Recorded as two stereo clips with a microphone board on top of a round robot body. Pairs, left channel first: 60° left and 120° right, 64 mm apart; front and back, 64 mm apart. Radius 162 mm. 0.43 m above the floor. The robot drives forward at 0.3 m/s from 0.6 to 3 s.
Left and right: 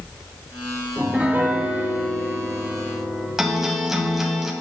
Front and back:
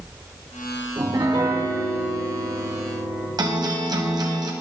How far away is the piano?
About 1.7 m.